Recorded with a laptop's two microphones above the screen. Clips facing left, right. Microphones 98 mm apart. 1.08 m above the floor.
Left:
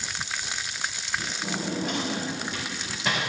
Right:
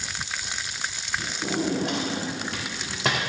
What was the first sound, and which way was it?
A drawer, 75° right (ahead or behind).